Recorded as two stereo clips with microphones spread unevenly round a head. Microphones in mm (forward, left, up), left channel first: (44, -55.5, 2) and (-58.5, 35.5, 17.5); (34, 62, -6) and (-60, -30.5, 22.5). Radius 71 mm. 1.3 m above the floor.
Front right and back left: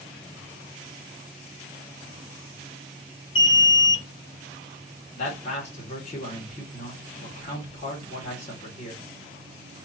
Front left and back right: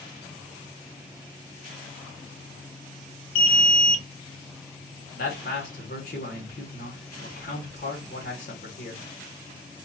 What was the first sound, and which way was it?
An alarm, 20° left.